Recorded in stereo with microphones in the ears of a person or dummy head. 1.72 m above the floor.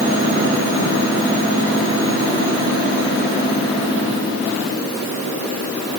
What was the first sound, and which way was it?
Only background noise.